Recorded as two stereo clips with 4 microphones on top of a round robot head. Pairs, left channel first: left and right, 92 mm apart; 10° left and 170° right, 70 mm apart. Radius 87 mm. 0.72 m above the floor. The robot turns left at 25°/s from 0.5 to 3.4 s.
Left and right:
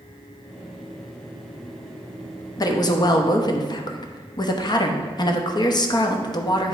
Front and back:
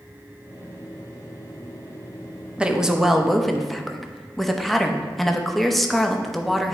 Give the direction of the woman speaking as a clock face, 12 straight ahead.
8 o'clock.